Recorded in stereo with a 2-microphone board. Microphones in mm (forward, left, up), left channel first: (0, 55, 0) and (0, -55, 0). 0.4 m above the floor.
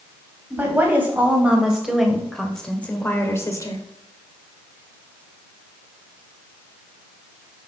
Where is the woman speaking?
20° right (ahead or behind), 2 m; by 3.9 s 35° left (ahead or behind), 1.2 m.